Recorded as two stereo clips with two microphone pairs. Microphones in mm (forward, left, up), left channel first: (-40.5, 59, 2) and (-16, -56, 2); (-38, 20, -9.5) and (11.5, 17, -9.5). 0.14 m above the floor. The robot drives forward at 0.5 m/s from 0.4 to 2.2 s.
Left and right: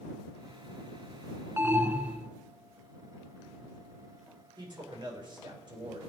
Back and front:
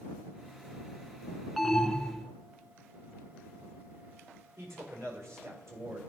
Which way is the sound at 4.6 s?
30° right.